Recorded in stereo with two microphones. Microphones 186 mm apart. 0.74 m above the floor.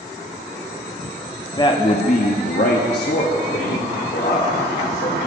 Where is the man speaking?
20° left (ahead or behind), 0.7 m; by 5.2 s 70° left (ahead or behind), 2 m.